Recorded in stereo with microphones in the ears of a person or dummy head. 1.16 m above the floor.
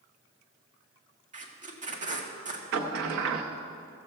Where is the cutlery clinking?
No cutlery clinking in this recording.